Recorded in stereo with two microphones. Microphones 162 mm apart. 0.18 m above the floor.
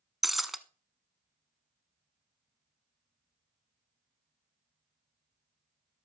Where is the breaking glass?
Centre (ahead or behind), 0.7 m.